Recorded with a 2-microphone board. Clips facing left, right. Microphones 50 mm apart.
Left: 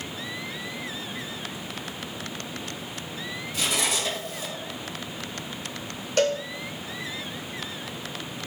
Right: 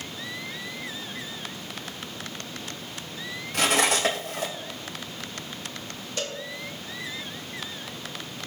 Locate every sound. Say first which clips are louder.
3.5 s cutlery clinking: right 5 dB; 65° right (ahead or behind), 3 m
6.2 s a cowbell: left 11 dB; 60° left (ahead or behind), 1.0 m